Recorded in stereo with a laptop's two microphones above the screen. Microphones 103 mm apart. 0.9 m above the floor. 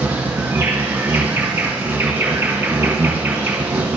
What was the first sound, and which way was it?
An insect, 20° right (ahead or behind).